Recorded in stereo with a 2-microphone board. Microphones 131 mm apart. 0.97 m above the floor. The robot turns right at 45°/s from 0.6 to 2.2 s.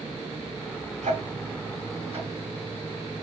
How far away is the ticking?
About 2.5 m.